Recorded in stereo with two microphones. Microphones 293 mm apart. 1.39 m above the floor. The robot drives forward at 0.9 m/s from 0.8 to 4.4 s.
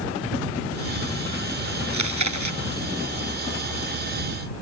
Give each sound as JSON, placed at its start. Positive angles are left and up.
{"t": 1.9, "sound": "chewing", "side_deg": -75}